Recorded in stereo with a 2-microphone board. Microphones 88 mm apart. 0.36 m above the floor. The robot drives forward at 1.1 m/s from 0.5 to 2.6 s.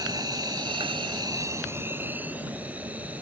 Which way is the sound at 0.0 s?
50° right (ahead or behind).